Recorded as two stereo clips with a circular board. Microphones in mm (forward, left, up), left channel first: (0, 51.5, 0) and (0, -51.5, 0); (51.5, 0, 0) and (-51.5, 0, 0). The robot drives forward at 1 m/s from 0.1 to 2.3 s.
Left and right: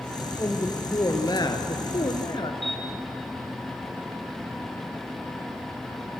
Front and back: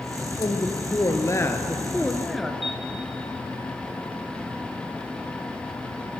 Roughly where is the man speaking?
Ahead left.